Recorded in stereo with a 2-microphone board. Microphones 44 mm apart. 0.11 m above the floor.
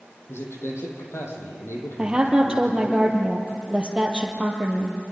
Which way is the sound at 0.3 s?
70° left (ahead or behind).